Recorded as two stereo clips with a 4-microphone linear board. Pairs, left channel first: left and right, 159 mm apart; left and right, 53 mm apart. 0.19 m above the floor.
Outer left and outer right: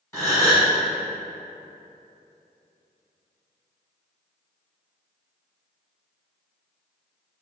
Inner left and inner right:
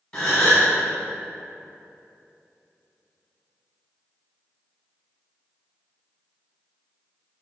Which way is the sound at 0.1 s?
15° left (ahead or behind).